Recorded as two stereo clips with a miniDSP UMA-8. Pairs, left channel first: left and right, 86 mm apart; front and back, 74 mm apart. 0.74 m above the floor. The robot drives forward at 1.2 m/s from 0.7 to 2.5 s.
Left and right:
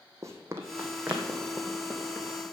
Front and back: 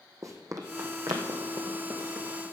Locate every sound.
0.2 s running footsteps: 140° right, 1.8 m; by 2.4 s 175° left, 3 m